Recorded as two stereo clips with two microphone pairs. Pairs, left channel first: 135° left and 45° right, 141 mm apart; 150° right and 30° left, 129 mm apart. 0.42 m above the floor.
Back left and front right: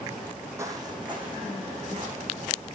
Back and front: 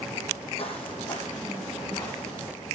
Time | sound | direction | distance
0.6 | footsteps | 115° right | 1.0 m